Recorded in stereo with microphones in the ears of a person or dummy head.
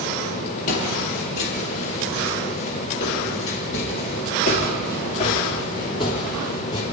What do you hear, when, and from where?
0.7 s footsteps: 50° left (ahead or behind), 3.5 m; by 6.8 s 25° left (ahead or behind), 3.5 m